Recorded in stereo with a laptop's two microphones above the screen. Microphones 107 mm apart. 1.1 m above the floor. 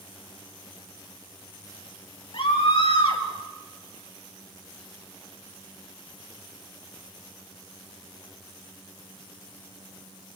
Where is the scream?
85° left, 6 m.